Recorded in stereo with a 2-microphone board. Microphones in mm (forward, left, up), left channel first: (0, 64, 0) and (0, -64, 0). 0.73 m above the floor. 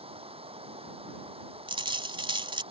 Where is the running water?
45° right (ahead or behind).